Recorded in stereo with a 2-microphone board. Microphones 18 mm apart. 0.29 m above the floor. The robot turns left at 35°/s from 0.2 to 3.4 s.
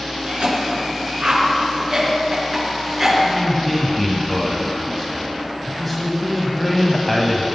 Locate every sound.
0.3 s a cough: 65° right (ahead or behind), 4.5 m; by 3.1 s 5° right (ahead or behind), 4.5 m
3.2 s a man speaking: 5° left (ahead or behind), 1.4 m; by 7.5 s 10° left (ahead or behind), 1.4 m